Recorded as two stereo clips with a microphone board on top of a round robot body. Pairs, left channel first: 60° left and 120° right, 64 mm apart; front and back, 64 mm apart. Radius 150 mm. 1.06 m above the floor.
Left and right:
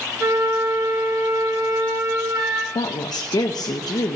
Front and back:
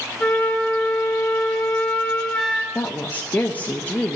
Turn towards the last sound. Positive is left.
turn(degrees=65)